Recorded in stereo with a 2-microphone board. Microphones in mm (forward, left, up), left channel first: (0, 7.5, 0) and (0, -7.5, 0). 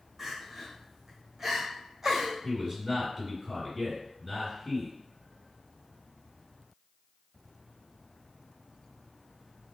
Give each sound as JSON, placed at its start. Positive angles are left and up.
{"t": 0.2, "sound": "crying", "side_deg": -15, "distance_m": 1.3}
{"t": 2.4, "sound": "a man speaking", "side_deg": -25, "distance_m": 1.8}